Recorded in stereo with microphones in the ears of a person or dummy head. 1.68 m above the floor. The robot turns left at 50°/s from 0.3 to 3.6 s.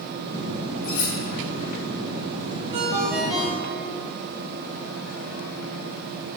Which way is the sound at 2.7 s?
150° right.